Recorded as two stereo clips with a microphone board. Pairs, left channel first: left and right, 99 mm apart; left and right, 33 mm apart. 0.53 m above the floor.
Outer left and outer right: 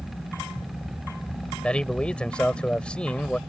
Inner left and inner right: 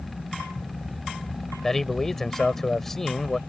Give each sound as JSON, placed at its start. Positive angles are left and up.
{"t": 1.6, "sound": "a man speaking", "side_deg": 10}